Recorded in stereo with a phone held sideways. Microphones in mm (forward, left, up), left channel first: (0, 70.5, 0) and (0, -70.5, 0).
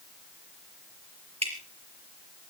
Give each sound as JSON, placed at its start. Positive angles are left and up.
{"t": 1.4, "sound": "dripping", "side_deg": -45, "distance_m": 4.0}